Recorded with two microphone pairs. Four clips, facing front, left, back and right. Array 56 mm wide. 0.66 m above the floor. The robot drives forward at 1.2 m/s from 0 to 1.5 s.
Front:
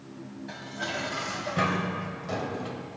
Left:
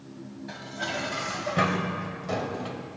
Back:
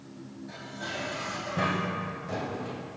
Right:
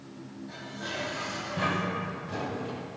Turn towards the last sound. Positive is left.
turn(degrees=65)